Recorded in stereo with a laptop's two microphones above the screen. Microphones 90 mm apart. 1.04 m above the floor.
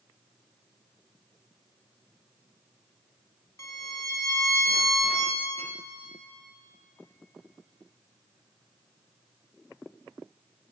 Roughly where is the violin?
Left.